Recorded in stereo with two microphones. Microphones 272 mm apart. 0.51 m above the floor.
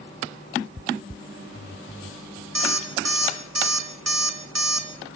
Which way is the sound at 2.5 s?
70° right (ahead or behind).